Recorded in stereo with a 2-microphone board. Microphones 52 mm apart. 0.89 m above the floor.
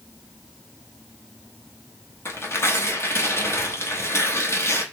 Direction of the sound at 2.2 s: 55° left (ahead or behind).